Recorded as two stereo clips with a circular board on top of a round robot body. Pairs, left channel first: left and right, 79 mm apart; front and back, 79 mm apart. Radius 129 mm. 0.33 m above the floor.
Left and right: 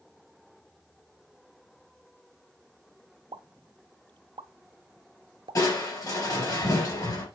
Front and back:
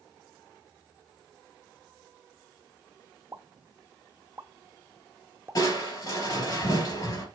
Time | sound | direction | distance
3.3 | a pop | 120° right | 0.6 m
5.5 | crushing | 45° left | 4 m